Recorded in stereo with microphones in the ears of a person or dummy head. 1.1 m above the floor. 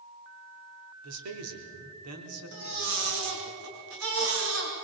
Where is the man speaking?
80° right, 4 m.